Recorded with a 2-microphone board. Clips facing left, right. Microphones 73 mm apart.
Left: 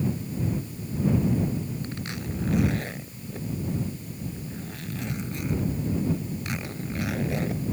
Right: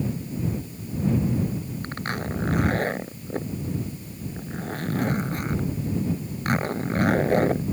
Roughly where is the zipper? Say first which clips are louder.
Right 4 dB; right.